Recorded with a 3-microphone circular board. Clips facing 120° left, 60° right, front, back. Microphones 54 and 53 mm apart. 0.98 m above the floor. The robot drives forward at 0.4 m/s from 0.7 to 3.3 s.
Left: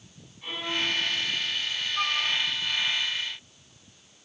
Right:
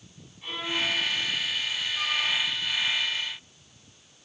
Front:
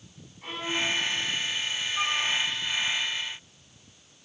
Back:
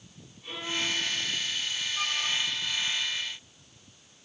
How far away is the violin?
About 8.5 m.